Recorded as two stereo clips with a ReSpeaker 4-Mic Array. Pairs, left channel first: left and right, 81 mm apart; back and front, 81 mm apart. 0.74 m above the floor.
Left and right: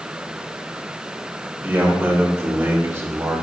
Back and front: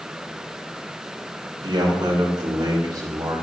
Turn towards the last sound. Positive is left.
turn(degrees=-35)